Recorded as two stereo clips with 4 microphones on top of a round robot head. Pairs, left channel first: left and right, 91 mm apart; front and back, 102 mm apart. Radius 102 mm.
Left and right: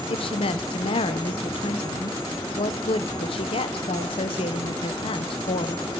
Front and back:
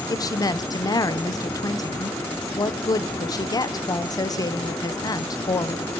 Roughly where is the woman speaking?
Ahead left.